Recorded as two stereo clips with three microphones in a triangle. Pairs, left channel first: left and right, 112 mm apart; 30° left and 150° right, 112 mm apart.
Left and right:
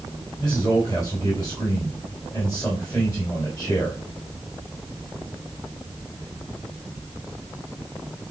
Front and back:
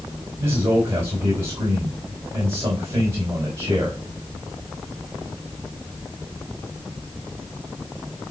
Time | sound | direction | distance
0.4 | a man speaking | 165° left | 3.5 m